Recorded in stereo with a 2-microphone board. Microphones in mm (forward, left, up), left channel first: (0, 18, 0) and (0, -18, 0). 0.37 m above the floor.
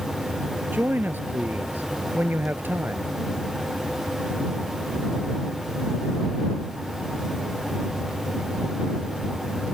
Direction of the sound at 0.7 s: 55° right (ahead or behind).